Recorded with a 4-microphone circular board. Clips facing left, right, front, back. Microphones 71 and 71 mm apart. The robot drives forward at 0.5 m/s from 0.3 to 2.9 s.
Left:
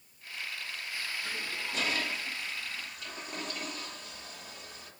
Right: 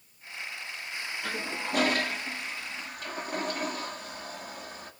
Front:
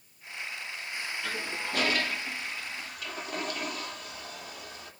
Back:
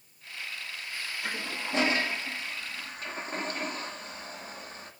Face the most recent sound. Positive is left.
turn(degrees=-130)